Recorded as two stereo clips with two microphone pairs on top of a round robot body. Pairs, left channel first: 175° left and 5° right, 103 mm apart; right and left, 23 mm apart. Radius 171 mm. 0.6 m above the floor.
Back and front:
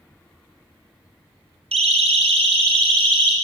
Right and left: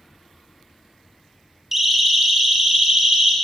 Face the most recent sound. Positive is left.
turn(degrees=35)